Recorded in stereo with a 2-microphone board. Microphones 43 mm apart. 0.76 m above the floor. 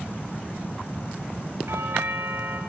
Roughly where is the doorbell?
Right.